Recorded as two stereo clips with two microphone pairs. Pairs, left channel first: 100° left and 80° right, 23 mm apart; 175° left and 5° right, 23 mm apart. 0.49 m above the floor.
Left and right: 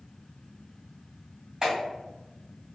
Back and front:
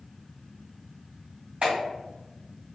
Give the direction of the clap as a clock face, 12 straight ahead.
1 o'clock.